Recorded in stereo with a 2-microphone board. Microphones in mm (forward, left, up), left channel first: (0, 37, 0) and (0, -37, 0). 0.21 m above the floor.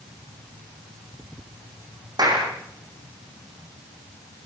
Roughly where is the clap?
Right.